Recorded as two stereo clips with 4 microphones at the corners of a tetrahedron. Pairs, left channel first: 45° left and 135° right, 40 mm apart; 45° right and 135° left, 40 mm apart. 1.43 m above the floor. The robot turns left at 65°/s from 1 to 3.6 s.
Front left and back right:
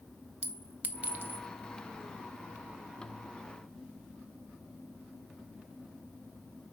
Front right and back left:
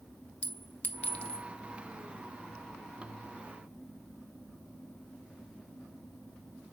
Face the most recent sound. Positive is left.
turn(degrees=105)